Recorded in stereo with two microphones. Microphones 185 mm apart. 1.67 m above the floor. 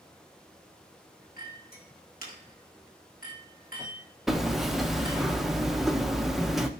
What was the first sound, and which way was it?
A clink, 55° left (ahead or behind).